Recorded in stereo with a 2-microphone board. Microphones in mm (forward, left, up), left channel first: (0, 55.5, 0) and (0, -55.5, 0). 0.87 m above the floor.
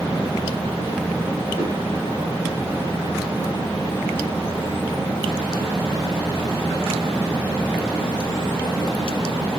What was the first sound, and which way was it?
A whoosh, 70° left (ahead or behind).